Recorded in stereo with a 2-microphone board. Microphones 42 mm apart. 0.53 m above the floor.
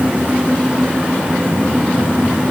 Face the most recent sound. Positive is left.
No sound to turn to.